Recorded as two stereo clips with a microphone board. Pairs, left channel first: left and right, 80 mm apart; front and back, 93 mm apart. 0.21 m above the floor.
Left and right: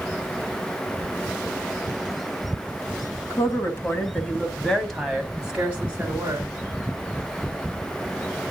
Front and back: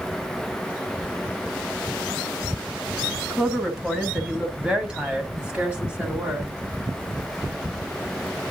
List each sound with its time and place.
3.3 s a woman speaking: 95° left, 1.6 m; by 6.5 s 110° right, 1.6 m